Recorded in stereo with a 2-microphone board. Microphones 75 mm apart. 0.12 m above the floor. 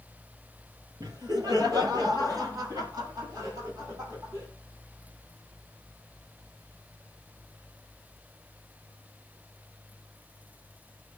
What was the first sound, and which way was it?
Laughter, 60° right (ahead or behind).